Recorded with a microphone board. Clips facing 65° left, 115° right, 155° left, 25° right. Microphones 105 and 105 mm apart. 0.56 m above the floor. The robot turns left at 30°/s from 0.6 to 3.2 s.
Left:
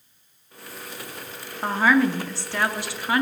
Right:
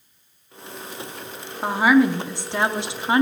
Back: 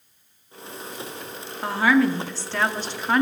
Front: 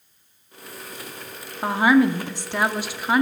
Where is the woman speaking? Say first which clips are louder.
Right 3 dB, front 2 dB; 50° right, 0.6 m; by 3.2 s 95° right, 0.6 m.